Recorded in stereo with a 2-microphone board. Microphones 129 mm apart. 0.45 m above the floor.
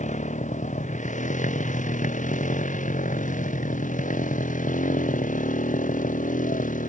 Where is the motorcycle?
70° left (ahead or behind); by 6.9 s 85° left.